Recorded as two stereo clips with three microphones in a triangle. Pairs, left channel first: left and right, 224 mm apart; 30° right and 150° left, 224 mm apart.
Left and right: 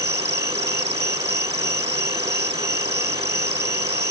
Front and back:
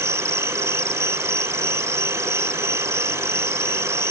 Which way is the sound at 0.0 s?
130° right.